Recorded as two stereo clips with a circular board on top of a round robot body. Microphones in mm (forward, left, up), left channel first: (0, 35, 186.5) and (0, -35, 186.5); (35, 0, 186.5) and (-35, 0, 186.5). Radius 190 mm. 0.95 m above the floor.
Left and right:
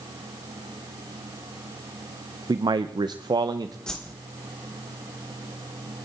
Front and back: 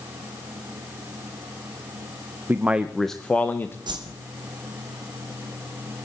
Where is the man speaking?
120° right, 0.7 m; by 3.8 s 60° right, 0.9 m.